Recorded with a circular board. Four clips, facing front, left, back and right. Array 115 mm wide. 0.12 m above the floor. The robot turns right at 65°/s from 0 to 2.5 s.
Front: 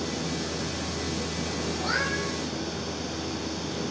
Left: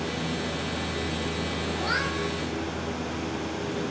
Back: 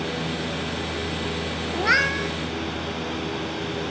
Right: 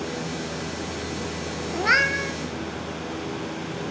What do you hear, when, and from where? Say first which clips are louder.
1.7 s a cat meowing: right 8 dB, back 9 dB; 140° right, 1.0 m; by 2.4 s 100° right, 1.0 m